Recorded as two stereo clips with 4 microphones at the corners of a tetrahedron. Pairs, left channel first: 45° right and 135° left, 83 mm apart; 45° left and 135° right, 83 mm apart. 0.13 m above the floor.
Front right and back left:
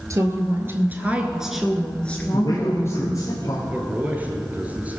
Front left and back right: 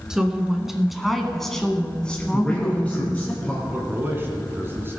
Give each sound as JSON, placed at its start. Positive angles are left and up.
{"t": 0.1, "sound": "a woman speaking", "azimuth_deg": 145, "distance_m": 1.4}
{"t": 2.3, "sound": "a man speaking", "azimuth_deg": -30, "distance_m": 2.5}
{"t": 3.7, "sound": "a man speaking", "azimuth_deg": -170, "distance_m": 1.7}